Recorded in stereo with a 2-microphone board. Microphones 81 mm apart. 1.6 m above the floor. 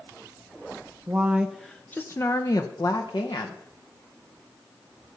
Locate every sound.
1.1 s a woman speaking: 20° right (ahead or behind), 0.7 m; by 3.6 s 65° left (ahead or behind), 1.3 m